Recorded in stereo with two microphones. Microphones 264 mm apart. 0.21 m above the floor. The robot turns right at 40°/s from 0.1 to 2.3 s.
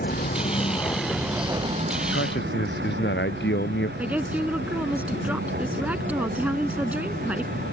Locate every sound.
0.0 s a vehicle: 35° left (ahead or behind); by 7.7 s 35° right (ahead or behind)
2.1 s a man speaking: 50° left (ahead or behind); by 3.9 s 40° left (ahead or behind)
4.0 s a woman speaking: 5° right (ahead or behind)